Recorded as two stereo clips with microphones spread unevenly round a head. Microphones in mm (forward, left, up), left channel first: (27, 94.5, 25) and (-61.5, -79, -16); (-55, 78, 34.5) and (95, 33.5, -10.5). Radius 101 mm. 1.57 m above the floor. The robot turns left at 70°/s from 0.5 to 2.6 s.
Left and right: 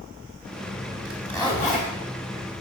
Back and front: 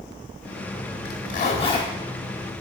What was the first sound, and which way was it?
A zipper, 155° left.